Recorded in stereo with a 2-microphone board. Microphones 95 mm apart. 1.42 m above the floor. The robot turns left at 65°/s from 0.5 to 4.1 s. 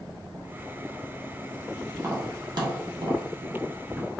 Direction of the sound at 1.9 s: 15° right (ahead or behind).